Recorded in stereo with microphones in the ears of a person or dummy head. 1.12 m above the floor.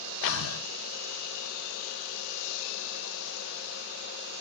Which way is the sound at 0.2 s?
90° left.